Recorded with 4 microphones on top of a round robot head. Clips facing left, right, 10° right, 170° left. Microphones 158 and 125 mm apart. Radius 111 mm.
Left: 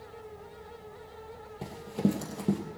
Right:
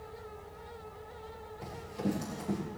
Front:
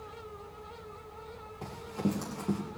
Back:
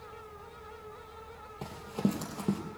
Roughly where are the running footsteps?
Left.